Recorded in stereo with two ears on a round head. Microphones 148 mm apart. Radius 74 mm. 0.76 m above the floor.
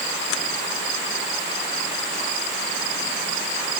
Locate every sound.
Only background noise.